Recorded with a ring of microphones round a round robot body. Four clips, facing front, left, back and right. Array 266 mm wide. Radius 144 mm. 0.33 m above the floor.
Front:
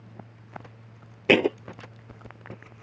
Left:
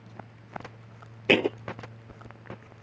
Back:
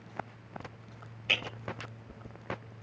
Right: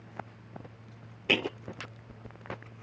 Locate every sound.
1.3 s a thud: 20° left